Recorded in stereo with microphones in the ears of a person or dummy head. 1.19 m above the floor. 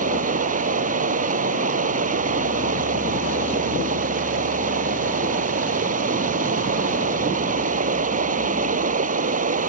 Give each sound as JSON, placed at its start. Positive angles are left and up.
{"t": 0.0, "sound": "running water", "side_deg": -50}